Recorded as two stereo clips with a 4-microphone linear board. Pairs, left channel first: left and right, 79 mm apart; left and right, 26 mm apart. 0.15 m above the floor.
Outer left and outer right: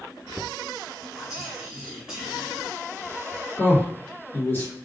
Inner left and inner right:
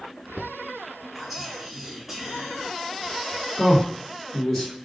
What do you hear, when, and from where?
1.1 s whispering: 5° right (ahead or behind), 1.5 m
3.6 s a man speaking: 30° left (ahead or behind), 1.9 m